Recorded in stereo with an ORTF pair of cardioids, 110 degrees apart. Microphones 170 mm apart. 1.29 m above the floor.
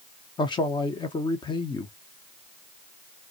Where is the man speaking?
25° left, 0.8 m.